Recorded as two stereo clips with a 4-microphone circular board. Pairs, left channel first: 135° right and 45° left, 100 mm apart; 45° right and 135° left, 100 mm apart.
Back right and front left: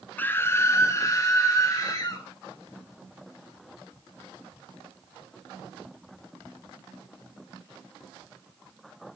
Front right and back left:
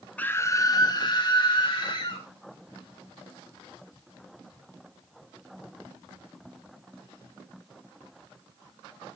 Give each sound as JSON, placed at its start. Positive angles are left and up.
{"t": 0.2, "sound": "a scream", "azimuth_deg": -95, "distance_m": 0.5}